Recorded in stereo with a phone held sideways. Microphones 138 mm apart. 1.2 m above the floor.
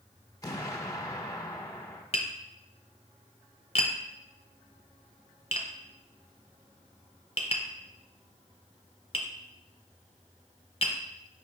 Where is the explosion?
25° left (ahead or behind), 0.9 m.